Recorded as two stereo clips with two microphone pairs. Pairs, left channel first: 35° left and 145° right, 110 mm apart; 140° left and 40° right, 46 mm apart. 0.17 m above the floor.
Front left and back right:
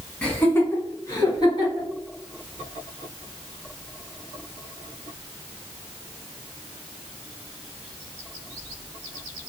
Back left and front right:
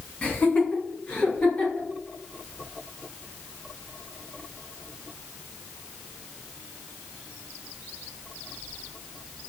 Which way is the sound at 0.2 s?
110° left.